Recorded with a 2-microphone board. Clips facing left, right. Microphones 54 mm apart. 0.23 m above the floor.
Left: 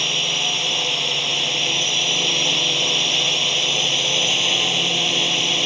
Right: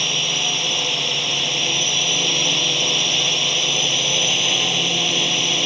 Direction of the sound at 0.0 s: 5° left (ahead or behind).